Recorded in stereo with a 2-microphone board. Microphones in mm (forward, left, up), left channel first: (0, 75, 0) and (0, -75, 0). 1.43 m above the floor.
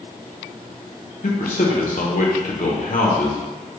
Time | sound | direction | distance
1.2 | a man speaking | 70° left (ahead or behind) | 0.9 m